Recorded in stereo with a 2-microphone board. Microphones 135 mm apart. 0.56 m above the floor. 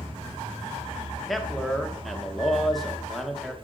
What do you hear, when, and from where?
1.3 s a man speaking: centre (ahead or behind), 0.8 m